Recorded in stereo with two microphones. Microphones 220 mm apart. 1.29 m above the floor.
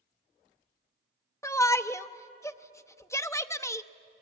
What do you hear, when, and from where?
1.4 s a shout: 10° left (ahead or behind), 0.7 m